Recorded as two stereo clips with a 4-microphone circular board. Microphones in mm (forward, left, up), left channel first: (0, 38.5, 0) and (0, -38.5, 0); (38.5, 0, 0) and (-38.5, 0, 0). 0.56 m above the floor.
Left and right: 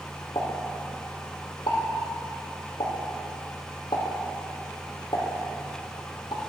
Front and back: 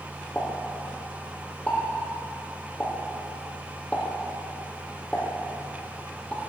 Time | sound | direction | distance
0.3 | a pop | 75° left | 4 m